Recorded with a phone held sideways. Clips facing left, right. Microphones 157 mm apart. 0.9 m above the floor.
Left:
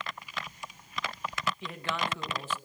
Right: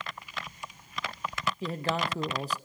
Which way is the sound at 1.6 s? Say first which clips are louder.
Right 4 dB; 40° right (ahead or behind).